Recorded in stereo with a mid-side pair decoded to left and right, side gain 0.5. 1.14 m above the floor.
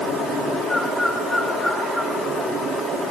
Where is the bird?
20° right, 8.5 m.